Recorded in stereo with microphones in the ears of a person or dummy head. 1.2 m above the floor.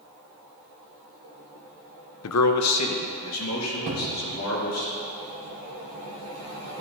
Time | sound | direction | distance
2.2 | a man speaking | 70° left (ahead or behind) | 0.6 m
3.9 | a cupboard door | 60° right (ahead or behind) | 1.3 m